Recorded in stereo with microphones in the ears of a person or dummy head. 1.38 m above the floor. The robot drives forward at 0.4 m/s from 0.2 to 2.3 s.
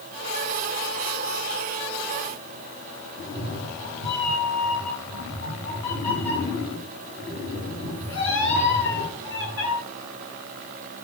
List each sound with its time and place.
3.2 s a cat meowing: 80° left, 6 m